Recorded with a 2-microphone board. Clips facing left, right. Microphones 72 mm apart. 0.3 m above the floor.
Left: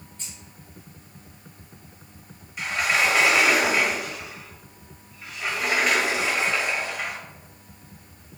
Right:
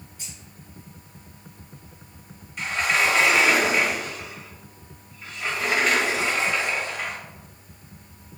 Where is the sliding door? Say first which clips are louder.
Even; 5° left (ahead or behind), 1.3 m.